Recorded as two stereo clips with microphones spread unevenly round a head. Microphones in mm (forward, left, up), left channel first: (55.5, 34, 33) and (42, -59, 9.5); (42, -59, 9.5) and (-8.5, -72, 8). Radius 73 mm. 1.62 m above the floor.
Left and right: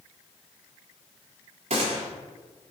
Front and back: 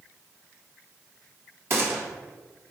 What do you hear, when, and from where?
1.7 s a gunshot: 145° right, 0.9 m